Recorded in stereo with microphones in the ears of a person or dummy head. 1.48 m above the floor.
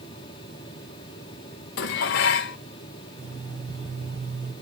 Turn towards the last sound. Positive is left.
turn(degrees=-50)  # may be behind; listen again after turning